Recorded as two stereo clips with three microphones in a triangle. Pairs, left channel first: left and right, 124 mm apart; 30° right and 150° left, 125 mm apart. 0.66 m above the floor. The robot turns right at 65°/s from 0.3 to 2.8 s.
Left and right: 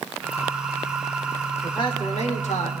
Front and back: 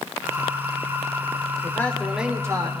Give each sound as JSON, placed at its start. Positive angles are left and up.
{"t": 1.6, "sound": "a man speaking", "azimuth_deg": 30, "distance_m": 1.4}